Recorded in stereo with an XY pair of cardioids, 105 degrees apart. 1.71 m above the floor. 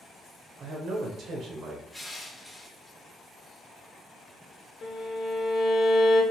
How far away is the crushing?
About 0.9 m.